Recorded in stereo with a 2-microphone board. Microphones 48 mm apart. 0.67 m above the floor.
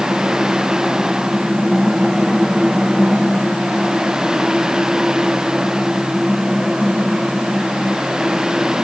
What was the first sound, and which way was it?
Only background noise.